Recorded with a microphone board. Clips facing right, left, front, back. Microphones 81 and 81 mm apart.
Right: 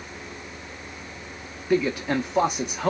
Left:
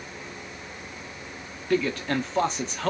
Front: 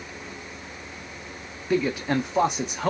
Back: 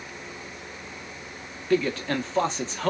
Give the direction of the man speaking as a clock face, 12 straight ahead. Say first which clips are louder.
Right 2 dB, even; 1 o'clock.